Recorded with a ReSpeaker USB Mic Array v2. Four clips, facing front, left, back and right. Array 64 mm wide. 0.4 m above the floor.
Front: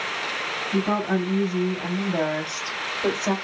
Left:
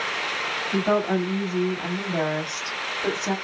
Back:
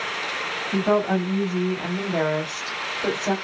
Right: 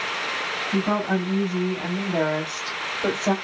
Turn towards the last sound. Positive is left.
turn(degrees=-100)